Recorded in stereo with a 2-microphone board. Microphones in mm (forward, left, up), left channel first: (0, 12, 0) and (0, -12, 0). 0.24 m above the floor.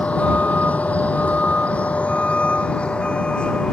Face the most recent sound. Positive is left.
turn(degrees=45)  # may be behind; listen again after turning